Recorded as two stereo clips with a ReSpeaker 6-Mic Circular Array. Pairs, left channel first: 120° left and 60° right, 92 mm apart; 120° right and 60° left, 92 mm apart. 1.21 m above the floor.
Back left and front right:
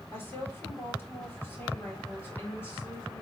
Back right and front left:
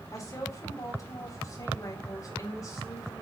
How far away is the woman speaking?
About 4 m.